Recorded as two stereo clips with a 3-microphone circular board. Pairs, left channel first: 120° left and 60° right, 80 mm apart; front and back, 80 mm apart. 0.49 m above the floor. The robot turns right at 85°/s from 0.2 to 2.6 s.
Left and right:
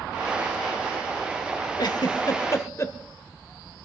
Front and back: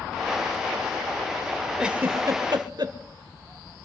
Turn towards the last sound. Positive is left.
turn(degrees=165)